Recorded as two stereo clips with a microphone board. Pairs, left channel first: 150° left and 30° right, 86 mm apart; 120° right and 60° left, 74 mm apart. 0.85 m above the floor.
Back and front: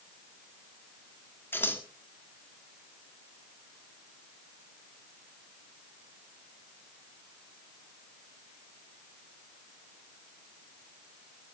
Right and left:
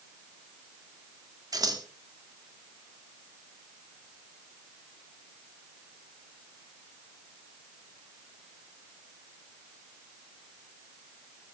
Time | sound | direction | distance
1.5 | scissors | 85° left | 2 m